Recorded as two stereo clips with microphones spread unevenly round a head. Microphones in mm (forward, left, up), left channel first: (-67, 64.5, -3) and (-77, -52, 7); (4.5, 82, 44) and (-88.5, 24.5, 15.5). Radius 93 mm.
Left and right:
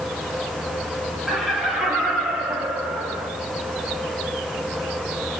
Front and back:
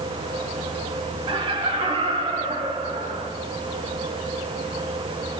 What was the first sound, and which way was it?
Laughter, 175° left.